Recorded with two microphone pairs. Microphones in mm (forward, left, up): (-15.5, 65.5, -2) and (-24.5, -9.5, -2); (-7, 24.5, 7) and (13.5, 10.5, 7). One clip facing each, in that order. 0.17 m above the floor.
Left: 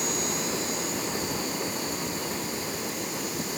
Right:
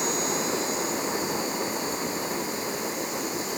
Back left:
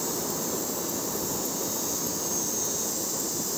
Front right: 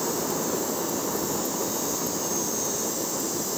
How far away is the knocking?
No knocking in this recording.